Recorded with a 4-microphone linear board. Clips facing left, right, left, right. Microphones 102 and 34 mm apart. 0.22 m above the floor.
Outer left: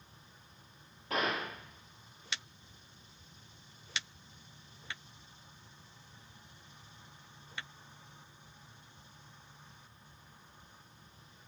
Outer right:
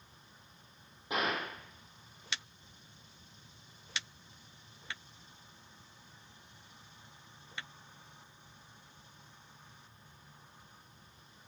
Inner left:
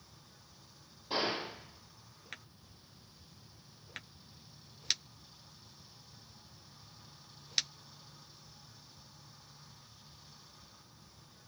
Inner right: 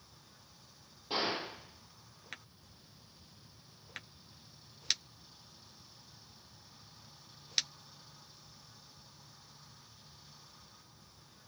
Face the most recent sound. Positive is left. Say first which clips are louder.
# even, even
turn(degrees=-15)  # may be behind; listen again after turning